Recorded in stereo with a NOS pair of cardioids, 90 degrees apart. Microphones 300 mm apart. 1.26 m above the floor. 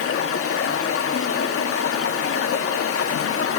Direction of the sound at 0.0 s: 50° left.